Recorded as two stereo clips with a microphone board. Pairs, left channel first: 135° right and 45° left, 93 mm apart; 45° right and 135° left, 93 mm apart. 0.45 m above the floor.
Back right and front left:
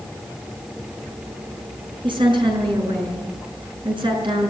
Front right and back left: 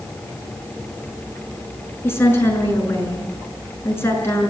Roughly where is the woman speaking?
Ahead.